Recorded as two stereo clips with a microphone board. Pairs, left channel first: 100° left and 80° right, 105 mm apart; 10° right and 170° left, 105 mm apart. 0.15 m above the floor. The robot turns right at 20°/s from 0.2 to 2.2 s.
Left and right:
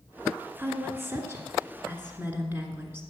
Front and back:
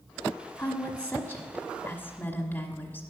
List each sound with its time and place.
0.6 s a woman speaking: 75° right, 1.3 m; by 3.0 s 40° right, 1.3 m